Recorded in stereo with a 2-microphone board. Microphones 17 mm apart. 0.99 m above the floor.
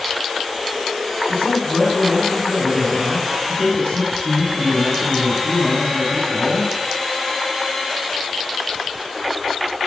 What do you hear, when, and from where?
1.3 s a man speaking: 90° left, 7.5 m